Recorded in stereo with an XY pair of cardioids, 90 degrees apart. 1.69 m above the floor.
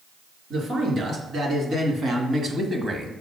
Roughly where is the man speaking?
Ahead right.